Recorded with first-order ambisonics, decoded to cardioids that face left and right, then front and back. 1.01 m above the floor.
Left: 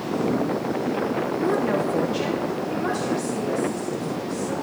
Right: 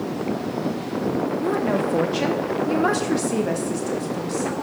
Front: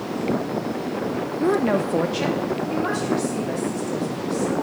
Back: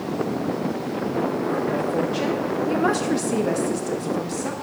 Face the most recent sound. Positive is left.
turn(degrees=-145)